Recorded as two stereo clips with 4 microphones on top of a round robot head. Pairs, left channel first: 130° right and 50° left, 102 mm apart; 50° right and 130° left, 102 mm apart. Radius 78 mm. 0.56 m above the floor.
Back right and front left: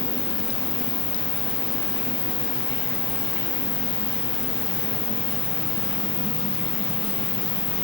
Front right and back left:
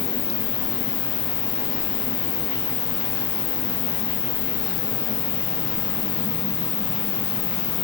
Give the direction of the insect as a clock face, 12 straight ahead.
2 o'clock.